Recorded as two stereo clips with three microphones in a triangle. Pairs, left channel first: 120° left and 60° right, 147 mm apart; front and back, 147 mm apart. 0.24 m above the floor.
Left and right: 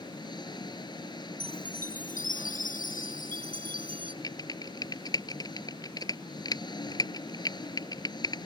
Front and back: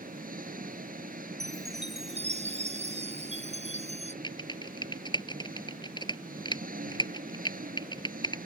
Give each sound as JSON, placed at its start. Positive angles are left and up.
{"t": 0.0, "sound": "an engine running", "azimuth_deg": 175}
{"t": 1.4, "sound": "a chime", "azimuth_deg": 140}
{"t": 4.2, "sound": "typing on a keyboard", "azimuth_deg": 60}